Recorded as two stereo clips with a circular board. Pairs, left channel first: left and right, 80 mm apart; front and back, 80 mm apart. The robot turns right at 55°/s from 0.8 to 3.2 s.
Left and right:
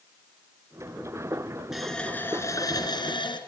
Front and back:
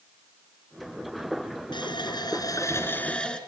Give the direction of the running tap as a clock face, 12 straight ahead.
12 o'clock.